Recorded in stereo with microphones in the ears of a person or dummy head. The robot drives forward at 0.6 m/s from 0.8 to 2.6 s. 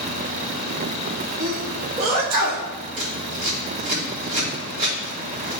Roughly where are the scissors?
Right.